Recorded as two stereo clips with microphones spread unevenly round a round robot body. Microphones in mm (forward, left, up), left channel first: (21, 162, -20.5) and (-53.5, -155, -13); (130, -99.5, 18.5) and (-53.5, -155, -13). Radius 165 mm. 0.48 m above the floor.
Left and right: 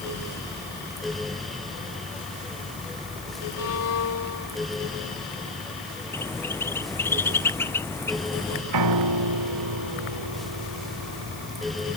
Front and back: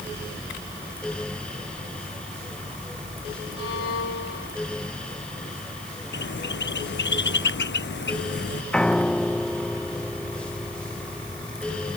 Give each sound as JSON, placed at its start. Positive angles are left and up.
{"t": 3.6, "sound": "a violin", "azimuth_deg": 30}
{"t": 6.1, "sound": "a bird", "azimuth_deg": -5}
{"t": 8.7, "sound": "a piano", "azimuth_deg": -70}